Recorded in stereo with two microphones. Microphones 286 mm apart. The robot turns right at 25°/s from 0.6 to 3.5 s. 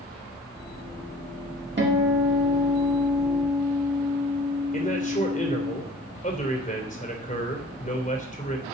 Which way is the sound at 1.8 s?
40° right.